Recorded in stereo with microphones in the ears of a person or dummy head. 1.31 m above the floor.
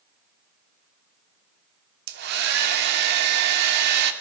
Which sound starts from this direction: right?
A hair dryer, at 2.1 s.